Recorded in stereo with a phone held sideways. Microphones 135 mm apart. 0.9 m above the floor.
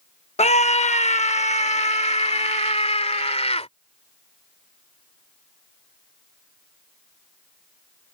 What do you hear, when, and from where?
0.4 s a scream: 50° left (ahead or behind)